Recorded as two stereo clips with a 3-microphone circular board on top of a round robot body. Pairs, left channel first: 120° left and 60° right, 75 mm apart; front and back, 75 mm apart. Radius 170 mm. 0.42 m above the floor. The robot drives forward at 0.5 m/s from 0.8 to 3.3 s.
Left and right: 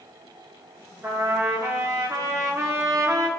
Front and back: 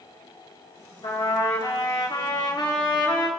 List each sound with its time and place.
1.0 s a trumpet: 5° right, 3.5 m; by 3.3 s 10° right, 2.5 m